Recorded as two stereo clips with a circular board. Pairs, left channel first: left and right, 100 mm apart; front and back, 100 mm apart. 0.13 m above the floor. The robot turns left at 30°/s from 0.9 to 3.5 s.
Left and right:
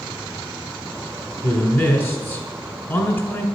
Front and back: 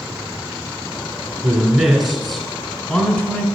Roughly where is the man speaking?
Left.